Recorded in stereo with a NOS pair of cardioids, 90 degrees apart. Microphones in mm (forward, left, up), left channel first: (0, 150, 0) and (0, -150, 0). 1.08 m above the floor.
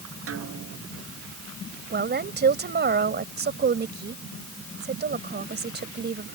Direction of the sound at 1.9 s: 35° right.